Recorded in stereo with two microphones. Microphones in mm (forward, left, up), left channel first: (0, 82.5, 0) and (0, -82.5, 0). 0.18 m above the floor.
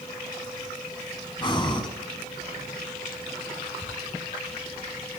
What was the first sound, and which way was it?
Breathing, 30° left (ahead or behind).